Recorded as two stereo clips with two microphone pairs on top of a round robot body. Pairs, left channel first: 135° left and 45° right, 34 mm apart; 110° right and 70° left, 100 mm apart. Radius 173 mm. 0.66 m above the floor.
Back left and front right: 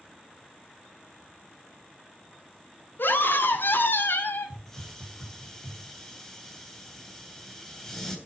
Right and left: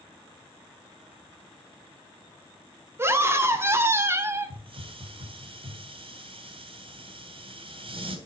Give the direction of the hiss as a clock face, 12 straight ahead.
10 o'clock.